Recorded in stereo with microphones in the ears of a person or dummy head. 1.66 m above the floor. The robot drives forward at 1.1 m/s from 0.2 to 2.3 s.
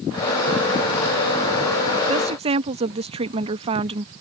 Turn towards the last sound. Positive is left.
turn(degrees=-30)  # may be behind; listen again after turning